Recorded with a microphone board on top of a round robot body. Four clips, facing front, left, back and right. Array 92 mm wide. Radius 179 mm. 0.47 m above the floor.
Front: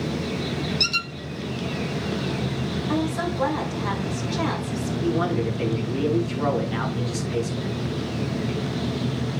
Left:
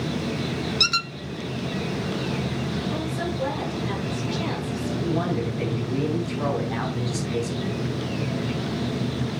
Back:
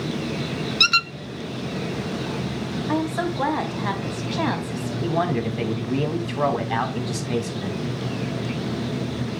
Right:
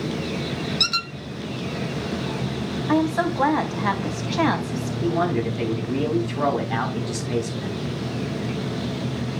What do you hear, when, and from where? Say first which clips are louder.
0.8 s a squeak: left 1 dB, back 6 dB; 175° left, 1.1 m
2.9 s a woman speaking: right 7 dB, back 2 dB; 110° right, 4 m
5.0 s a man speaking: right 5 dB, back 1 dB; 160° right, 5.5 m